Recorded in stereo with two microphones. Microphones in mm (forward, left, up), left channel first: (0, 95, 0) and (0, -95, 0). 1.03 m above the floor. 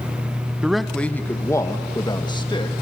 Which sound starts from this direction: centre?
A man speaking, at 0.6 s.